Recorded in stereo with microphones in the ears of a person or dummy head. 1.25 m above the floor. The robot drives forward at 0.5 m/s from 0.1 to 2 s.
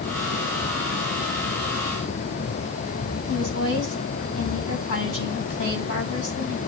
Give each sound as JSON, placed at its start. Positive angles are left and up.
{"t": 3.3, "sound": "a woman speaking", "side_deg": 60, "distance_m": 8.0}